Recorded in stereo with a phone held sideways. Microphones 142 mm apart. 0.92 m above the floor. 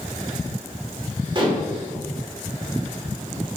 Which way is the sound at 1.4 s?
35° right (ahead or behind).